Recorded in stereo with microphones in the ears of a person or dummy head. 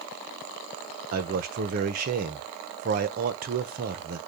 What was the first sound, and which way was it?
A man speaking, 45° right (ahead or behind).